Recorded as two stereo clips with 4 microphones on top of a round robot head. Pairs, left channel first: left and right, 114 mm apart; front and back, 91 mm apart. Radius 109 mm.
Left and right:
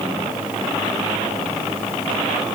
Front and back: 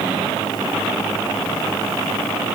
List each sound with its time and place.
Only background noise.